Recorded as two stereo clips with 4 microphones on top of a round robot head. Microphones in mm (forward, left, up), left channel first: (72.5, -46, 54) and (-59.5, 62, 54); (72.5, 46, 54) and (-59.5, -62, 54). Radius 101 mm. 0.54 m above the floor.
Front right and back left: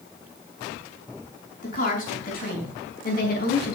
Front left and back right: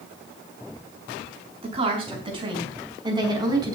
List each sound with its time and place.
1.6 s a woman speaking: 85° right, 5.5 m; by 3.8 s 75° right, 4.5 m